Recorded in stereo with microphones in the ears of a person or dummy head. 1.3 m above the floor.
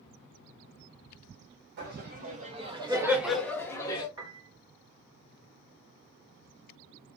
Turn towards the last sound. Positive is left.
turn(degrees=-25)  # may be behind; listen again after turning